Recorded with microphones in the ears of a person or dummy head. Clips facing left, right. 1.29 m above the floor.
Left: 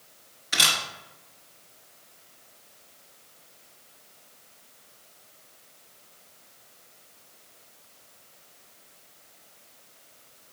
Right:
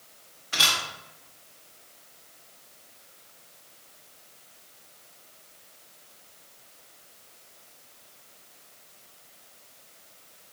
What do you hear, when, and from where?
0.5 s a camera shutter: 20° left (ahead or behind), 1.0 m